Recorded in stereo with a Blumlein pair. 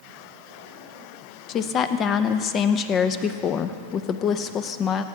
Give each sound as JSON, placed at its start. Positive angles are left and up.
{"t": 1.5, "sound": "a woman speaking", "azimuth_deg": 30, "distance_m": 0.8}